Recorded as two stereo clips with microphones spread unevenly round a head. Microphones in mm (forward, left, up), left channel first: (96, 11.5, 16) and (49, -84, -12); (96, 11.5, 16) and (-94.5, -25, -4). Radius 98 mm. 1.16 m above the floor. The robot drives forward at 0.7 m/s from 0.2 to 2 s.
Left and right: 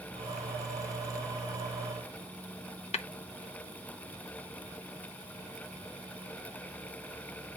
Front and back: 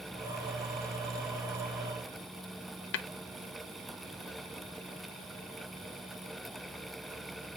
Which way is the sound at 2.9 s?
50° left.